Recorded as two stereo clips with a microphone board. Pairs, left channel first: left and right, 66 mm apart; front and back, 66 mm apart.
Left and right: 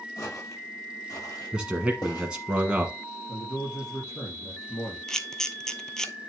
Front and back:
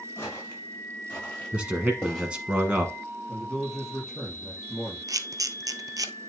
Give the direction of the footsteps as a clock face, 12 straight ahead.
10 o'clock.